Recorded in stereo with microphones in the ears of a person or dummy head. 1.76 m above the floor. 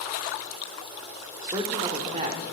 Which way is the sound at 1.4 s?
20° right (ahead or behind).